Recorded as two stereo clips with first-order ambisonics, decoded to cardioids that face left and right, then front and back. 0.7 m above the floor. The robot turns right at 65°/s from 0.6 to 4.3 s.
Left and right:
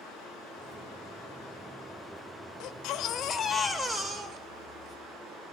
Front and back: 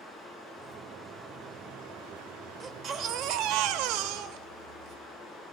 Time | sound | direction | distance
0.0 | running water | 60° left | 4.5 m
2.6 | a baby crying | 105° left | 0.7 m